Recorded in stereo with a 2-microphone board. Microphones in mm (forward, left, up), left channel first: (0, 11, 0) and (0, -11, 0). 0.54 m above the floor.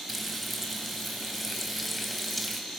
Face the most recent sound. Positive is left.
turn(degrees=0)  # may be behind; listen again after turning